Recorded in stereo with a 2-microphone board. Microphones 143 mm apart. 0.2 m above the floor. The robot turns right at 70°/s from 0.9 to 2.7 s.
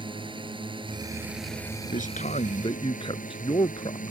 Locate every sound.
0.0 s a drone: 40° right; by 4.1 s 85° left
1.9 s a man speaking: 80° left; by 4.1 s 135° left